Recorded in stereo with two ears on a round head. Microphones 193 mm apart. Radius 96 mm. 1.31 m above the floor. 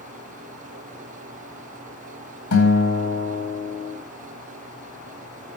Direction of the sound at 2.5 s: 70° left (ahead or behind).